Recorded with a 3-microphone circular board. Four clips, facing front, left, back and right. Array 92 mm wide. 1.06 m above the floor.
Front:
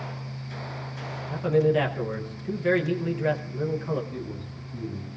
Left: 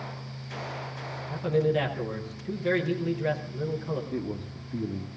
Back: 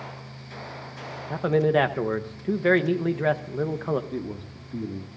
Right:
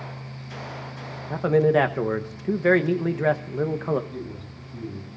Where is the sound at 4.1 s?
135° left, 2.0 m.